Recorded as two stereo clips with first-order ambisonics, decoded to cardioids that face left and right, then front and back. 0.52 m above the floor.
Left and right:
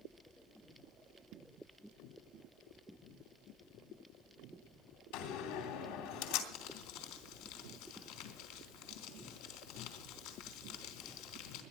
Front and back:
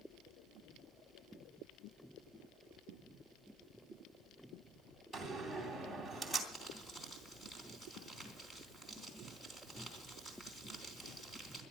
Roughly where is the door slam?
Left.